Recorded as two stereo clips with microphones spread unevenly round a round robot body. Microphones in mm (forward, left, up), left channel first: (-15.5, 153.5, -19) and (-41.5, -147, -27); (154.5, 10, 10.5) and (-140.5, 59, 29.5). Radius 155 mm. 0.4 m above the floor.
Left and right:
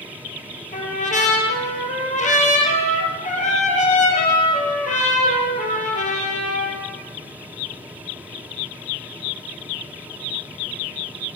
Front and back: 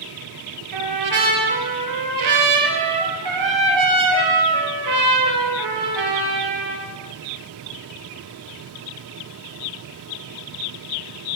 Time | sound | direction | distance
0.7 | a trumpet | 150° left | 6 m